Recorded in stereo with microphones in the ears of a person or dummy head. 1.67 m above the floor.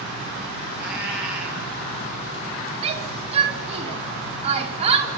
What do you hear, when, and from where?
0.8 s a cat meowing: 10° right (ahead or behind), 8 m
2.8 s a shout: 30° right (ahead or behind), 5 m